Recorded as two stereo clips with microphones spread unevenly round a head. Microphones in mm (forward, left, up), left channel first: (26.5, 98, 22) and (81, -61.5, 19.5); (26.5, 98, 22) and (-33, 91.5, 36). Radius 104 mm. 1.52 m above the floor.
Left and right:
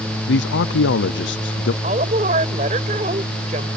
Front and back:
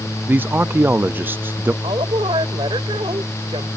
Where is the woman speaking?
135° right.